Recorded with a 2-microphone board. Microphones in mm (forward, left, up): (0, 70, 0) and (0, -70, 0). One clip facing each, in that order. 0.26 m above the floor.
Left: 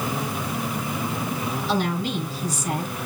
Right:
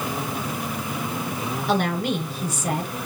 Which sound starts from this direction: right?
A woman speaking, at 1.7 s.